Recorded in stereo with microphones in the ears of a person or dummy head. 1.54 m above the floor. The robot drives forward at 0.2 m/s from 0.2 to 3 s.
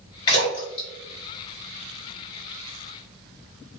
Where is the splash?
25° left (ahead or behind), 1.6 m; by 2.4 s 30° left (ahead or behind), 1.5 m.